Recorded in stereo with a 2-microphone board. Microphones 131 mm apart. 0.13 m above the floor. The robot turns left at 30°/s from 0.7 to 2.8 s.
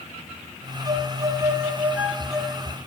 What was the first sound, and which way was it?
A violin, 130° right.